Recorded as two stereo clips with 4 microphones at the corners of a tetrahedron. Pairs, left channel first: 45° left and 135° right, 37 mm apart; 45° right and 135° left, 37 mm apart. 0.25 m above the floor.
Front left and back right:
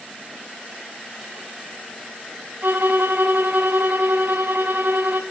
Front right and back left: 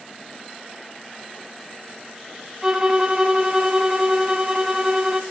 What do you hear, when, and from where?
2.6 s a violin: 155° right, 1.1 m